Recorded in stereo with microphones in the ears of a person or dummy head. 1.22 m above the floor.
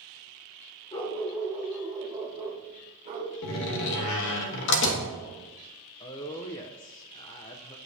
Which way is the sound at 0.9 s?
25° left (ahead or behind).